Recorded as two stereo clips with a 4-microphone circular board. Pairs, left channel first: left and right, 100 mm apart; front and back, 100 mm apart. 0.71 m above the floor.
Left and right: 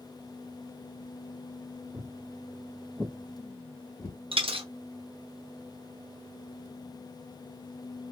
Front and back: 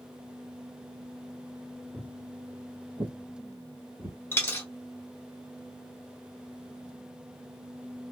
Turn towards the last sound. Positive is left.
turn(degrees=-65)